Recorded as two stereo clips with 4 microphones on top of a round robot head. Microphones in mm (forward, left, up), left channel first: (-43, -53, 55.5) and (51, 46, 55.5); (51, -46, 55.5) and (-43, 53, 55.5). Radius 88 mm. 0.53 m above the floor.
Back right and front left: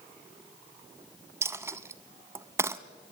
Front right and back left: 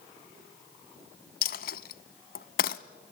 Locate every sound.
1.4 s a dropped coin: 25° right, 0.7 m